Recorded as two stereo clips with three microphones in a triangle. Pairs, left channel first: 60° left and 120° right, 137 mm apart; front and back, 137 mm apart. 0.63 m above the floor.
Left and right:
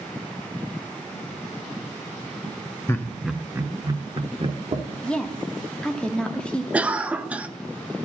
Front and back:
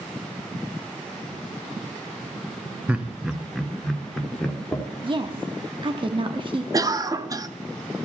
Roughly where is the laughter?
Left.